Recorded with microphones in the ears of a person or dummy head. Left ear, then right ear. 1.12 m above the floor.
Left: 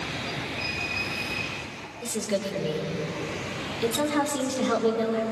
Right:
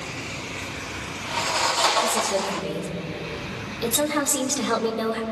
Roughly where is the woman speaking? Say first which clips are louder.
Right 6 dB; centre.